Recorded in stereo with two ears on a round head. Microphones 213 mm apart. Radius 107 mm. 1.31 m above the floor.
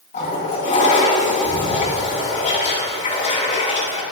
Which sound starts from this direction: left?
A toilet flushing, at 0.1 s.